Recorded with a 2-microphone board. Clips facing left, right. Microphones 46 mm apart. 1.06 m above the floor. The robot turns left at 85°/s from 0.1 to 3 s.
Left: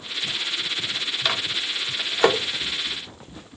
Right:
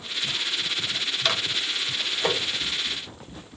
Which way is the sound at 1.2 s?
5° left (ahead or behind).